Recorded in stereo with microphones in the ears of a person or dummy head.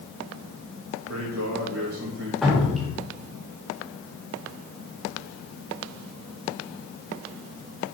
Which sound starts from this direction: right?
A man speaking, at 1.1 s.